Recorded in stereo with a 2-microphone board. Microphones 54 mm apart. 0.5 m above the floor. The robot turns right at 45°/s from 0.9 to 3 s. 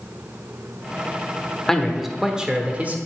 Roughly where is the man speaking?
Behind.